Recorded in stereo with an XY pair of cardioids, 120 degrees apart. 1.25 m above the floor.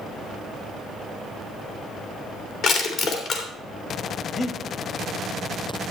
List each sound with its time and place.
2.6 s crushing: 60° left, 3 m
4.3 s breathing: 35° left, 1.6 m